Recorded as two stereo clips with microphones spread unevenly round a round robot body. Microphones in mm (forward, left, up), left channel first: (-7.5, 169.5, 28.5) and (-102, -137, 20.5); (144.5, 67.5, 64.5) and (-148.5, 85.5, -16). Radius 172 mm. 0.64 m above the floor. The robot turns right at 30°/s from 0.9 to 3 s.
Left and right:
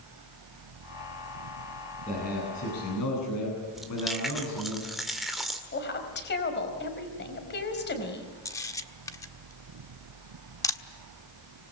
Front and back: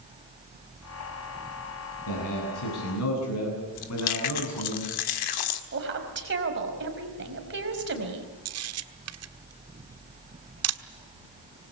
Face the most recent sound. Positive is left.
turn(degrees=155)